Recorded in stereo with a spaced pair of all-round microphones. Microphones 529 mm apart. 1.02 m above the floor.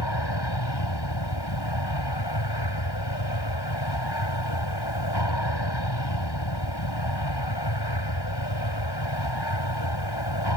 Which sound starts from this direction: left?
An aircraft, at 0.0 s.